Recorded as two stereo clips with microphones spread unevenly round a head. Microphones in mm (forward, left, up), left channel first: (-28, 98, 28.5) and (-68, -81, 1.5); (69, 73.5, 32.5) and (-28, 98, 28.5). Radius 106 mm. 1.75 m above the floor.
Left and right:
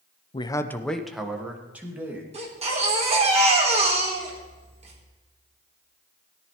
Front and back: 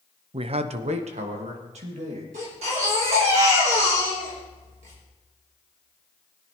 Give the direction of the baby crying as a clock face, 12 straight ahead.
5 o'clock.